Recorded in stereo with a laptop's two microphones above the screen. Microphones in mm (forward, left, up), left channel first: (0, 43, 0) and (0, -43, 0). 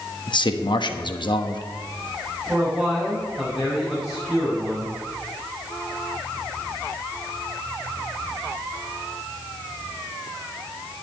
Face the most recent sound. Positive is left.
turn(degrees=-5)  # may be behind; listen again after turning